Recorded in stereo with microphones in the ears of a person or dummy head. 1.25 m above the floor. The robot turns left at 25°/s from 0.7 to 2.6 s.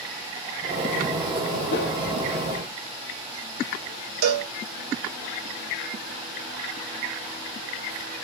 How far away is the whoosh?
About 0.7 m.